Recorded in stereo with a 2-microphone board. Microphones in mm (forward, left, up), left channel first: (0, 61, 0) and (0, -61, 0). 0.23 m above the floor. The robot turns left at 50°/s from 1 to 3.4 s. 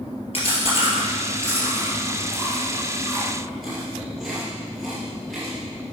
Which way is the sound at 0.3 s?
55° left (ahead or behind).